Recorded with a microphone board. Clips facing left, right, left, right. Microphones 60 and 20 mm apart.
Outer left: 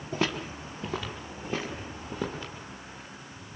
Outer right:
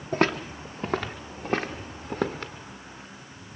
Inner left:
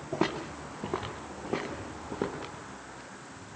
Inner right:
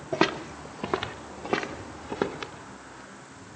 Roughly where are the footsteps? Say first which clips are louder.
Outer right 6 dB, inner right 5 dB; right.